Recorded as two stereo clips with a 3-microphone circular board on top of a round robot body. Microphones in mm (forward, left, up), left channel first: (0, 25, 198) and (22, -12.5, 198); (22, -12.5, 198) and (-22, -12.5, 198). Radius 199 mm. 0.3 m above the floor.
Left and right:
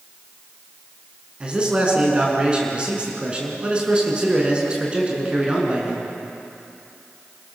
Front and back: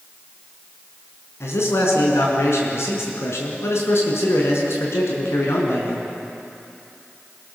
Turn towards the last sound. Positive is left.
turn(degrees=10)